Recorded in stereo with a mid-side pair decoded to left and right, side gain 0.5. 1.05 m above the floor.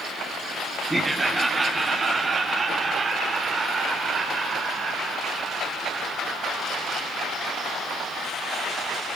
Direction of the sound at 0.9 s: 10° right.